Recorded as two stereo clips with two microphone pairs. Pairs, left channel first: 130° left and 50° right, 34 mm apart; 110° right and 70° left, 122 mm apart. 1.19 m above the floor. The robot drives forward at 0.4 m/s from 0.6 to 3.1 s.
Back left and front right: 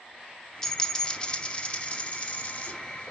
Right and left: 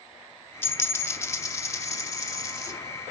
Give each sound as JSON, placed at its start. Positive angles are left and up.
{"t": 0.6, "sound": "a dropped coin", "azimuth_deg": -160, "distance_m": 0.7}